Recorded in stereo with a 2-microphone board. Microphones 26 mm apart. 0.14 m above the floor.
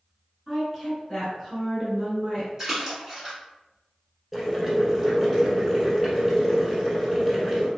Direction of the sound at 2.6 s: 25° right (ahead or behind).